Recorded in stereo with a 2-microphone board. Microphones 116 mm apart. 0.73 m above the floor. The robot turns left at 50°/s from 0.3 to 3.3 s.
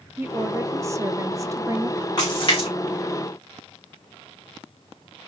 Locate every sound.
0.2 s a woman speaking: 15° right (ahead or behind), 0.5 m; by 2.1 s 20° right (ahead or behind), 0.5 m
2.2 s a splash: 35° left (ahead or behind), 3 m; by 2.7 s 60° left (ahead or behind), 3 m